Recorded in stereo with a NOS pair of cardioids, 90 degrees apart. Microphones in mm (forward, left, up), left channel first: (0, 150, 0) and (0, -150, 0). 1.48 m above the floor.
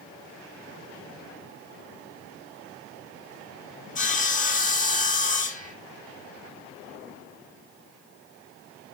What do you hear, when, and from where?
4.0 s sawing: 25° left, 2.5 m